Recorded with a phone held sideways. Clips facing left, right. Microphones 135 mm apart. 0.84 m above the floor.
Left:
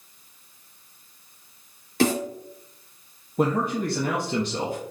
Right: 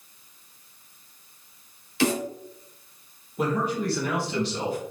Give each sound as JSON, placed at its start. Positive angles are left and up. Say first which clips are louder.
{"t": 2.0, "sound": "a snare drum", "louder": "left 2 dB", "side_deg": 45, "distance_m": 2.5}
{"t": 3.4, "sound": "a man speaking", "louder": "left 2 dB", "side_deg": 45, "distance_m": 1.0}